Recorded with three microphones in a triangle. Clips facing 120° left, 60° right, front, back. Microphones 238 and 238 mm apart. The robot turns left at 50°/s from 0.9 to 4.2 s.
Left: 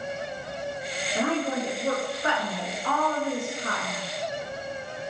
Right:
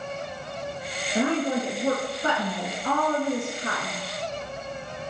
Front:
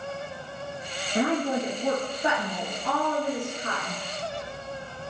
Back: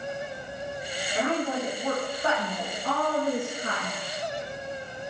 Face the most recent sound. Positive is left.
turn(degrees=-150)